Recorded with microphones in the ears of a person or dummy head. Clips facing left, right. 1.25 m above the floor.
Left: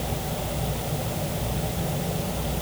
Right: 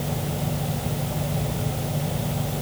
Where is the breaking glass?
I don't hear breaking glass.